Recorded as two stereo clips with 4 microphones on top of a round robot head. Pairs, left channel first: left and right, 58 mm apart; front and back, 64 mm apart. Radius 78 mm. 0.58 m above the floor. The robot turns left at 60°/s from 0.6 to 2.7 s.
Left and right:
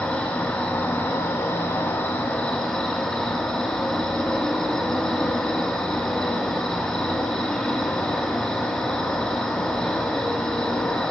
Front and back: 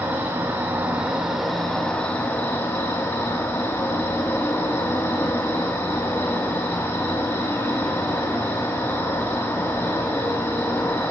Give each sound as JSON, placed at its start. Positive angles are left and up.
{"t": 0.0, "sound": "an insect", "azimuth_deg": 145, "distance_m": 2.0}